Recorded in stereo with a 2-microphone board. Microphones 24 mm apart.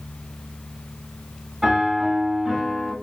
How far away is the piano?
About 2 m.